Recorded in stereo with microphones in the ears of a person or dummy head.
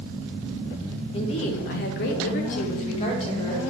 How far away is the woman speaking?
About 0.7 m.